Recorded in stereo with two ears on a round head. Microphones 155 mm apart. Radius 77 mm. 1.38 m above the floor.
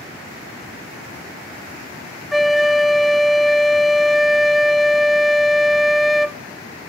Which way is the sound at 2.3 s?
Centre (ahead or behind).